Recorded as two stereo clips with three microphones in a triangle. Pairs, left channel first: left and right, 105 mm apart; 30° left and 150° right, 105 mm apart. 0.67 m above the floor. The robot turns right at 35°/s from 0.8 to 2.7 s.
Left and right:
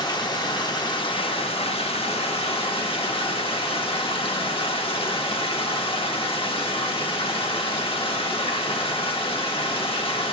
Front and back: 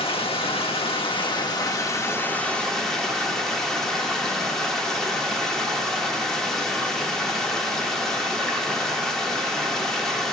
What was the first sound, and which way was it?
Running water, 50° left.